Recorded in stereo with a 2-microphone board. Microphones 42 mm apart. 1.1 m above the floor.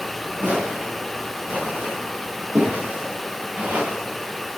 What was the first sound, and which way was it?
Footsteps, 75° right (ahead or behind).